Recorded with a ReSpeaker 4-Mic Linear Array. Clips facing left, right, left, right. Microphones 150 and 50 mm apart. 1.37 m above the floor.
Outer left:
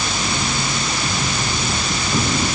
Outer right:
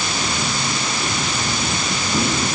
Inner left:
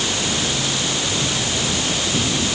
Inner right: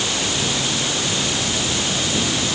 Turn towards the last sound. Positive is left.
No sound to turn to.